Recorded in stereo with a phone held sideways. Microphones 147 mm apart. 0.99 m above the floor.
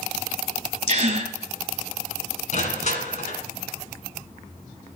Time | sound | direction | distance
0.9 | a gasp | 55° right (ahead or behind) | 1.2 m
2.5 | crushing | 55° left (ahead or behind) | 1.7 m